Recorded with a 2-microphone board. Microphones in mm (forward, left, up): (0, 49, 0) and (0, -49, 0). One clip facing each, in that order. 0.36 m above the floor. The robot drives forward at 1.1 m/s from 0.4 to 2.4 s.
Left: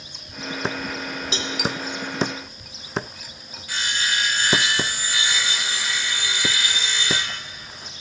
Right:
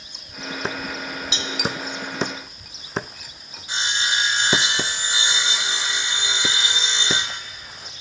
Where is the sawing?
25° right (ahead or behind), 1.1 m.